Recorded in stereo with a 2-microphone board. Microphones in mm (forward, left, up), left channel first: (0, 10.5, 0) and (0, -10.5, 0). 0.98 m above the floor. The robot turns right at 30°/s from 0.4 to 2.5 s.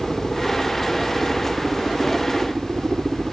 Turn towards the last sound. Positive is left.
turn(degrees=-90)